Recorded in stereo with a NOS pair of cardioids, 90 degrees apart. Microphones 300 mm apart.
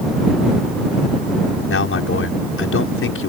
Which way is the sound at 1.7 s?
45° left.